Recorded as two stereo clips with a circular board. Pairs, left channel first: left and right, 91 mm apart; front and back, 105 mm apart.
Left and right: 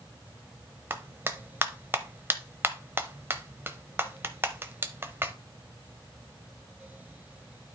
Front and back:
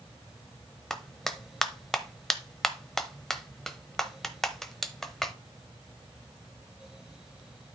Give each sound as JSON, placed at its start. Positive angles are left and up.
{"t": 0.9, "sound": "a clap", "azimuth_deg": -80, "distance_m": 0.8}